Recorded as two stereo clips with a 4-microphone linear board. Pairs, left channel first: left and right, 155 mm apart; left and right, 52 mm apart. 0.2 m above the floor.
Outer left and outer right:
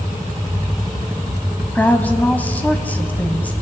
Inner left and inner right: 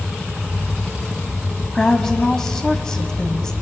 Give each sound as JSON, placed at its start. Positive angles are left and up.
{"t": 1.8, "sound": "a woman speaking", "side_deg": 10, "distance_m": 1.0}